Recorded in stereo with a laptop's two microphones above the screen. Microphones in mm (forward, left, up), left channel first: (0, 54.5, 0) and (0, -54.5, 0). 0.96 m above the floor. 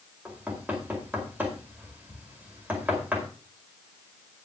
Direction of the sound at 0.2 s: 15° right (ahead or behind).